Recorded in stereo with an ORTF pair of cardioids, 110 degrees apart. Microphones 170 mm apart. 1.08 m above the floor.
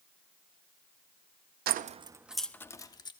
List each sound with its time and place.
1.7 s keys jangling: 65° right, 0.8 m; by 3.1 s 25° left, 1.7 m